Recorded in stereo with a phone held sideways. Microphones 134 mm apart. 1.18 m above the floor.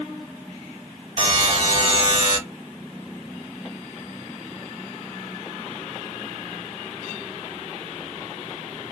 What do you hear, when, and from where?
1.2 s a buzzer: 40° right (ahead or behind), 2 m